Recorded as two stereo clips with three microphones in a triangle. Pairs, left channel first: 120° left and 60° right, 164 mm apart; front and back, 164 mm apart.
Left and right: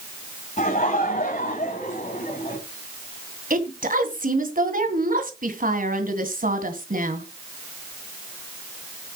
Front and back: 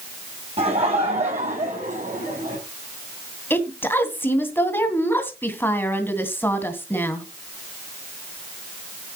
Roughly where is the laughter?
Behind left.